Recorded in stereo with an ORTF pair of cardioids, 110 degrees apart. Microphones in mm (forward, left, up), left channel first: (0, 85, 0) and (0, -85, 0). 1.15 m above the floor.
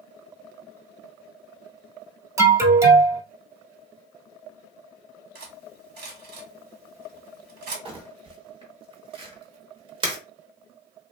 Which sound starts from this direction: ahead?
An alarm, at 2.4 s.